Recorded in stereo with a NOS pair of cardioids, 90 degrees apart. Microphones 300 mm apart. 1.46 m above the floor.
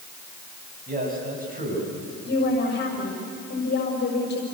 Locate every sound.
0.9 s a man speaking: 30° right, 8.5 m
2.2 s a woman speaking: 35° left, 6.5 m